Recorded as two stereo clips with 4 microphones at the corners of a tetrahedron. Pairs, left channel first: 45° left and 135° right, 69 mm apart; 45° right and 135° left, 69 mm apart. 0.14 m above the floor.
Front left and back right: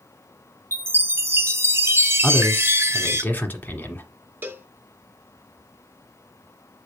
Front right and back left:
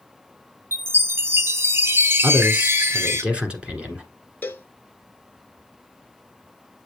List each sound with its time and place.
0.7 s a chime: straight behind, 0.7 m
2.2 s a man speaking: 80° left, 1.4 m
4.4 s a cowbell: 90° right, 0.7 m